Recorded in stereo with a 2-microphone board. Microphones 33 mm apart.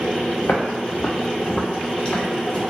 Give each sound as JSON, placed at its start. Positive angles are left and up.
{"t": 0.4, "sound": "footsteps", "side_deg": 75, "distance_m": 0.8}